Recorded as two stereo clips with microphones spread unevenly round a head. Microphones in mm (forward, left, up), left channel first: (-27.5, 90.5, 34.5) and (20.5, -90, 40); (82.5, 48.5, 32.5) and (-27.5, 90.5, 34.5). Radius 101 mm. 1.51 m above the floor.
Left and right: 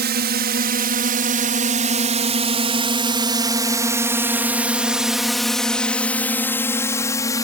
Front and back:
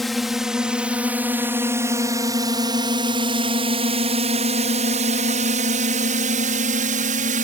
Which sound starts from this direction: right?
A drone, at 0.0 s.